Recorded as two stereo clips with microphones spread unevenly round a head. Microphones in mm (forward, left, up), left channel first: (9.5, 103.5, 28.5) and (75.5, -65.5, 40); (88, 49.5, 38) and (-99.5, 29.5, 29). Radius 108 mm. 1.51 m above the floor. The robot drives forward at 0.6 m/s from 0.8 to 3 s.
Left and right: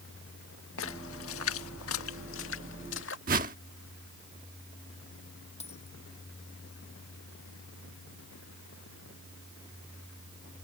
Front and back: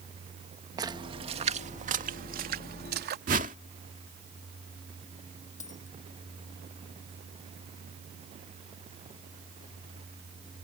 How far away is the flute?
I don't hear a flute.